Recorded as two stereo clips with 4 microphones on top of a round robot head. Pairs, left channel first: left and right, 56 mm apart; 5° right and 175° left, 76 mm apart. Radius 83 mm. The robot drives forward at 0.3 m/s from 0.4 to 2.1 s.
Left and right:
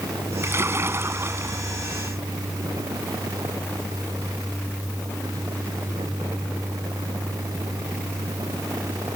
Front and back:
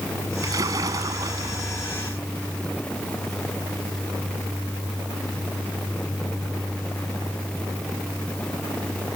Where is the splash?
135° right.